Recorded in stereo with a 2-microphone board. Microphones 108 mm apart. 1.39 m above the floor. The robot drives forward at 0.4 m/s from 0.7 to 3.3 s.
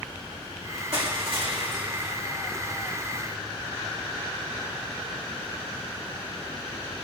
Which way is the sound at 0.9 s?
60° right (ahead or behind).